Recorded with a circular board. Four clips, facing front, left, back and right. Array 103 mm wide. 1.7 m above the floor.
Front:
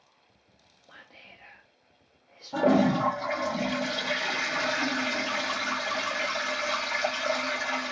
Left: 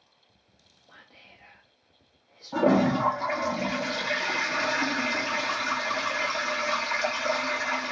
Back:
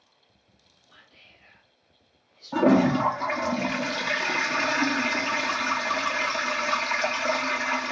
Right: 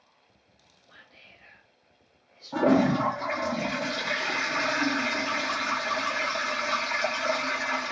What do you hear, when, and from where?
0.9 s whispering: 20° left, 0.6 m
2.5 s a toilet flushing: 175° left, 1.0 m